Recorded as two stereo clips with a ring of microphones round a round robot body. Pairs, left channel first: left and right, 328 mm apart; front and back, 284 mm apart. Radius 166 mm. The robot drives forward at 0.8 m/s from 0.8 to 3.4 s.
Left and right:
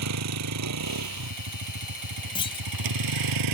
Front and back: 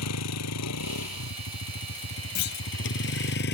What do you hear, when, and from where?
0.0 s a vehicle: 45° right; by 3.5 s 60° right
2.4 s a clunk: 15° left; by 2.7 s 20° left